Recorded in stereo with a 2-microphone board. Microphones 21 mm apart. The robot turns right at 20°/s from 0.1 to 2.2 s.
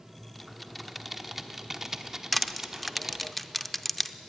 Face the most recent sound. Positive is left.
turn(degrees=5)  # may be behind; listen again after turning